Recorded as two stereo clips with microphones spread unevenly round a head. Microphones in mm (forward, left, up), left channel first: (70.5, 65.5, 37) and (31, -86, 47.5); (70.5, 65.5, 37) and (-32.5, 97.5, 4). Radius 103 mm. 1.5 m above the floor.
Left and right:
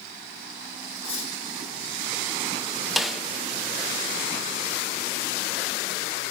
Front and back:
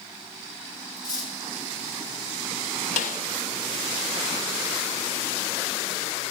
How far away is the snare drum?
About 0.5 m.